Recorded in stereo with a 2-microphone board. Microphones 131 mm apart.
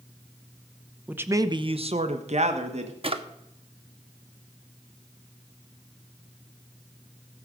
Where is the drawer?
45° right (ahead or behind), 1.0 m.